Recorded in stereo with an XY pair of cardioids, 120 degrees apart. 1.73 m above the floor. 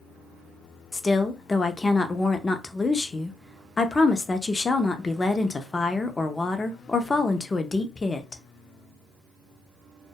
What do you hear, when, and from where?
0.9 s a woman speaking: 20° left, 0.5 m